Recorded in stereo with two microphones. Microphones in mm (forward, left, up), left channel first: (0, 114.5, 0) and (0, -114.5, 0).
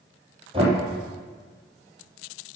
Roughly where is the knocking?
Right.